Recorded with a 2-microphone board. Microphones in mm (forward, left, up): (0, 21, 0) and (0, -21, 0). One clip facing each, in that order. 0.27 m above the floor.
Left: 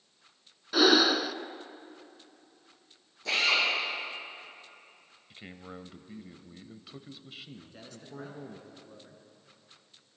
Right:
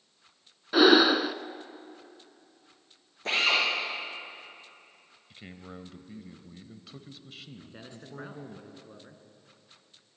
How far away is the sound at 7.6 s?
About 2.5 m.